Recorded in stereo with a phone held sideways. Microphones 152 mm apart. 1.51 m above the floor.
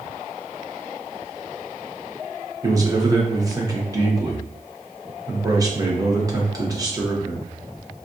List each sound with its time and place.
2.6 s a man speaking: 25° right (ahead or behind), 0.9 m